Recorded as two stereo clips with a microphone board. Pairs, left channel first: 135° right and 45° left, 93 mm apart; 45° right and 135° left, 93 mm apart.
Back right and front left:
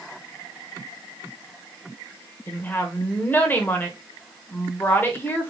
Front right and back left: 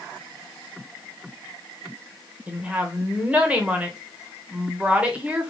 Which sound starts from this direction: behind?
A woman speaking, at 2.5 s.